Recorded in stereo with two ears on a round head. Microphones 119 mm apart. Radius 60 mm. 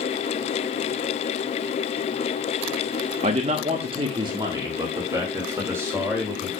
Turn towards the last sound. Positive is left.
turn(degrees=-15)  # may be behind; listen again after turning